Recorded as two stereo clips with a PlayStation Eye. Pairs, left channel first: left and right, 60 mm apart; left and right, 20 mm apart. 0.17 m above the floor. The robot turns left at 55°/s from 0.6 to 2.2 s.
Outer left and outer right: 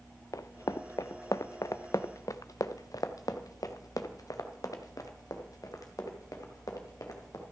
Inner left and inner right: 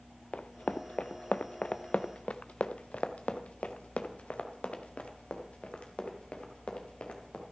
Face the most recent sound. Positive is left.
turn(degrees=75)  # may be behind; listen again after turning